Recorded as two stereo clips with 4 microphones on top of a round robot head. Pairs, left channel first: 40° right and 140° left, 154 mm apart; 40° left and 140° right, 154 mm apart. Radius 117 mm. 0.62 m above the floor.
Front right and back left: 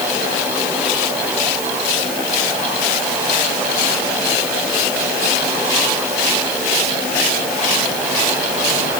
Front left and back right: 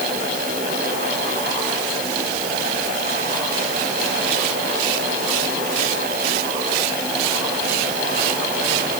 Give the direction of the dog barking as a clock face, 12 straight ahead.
I don't hear a dog barking.